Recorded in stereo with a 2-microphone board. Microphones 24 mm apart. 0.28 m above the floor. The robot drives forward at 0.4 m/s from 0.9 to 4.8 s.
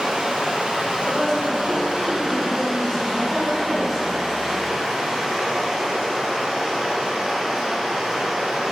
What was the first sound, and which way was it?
Running water, 50° right (ahead or behind).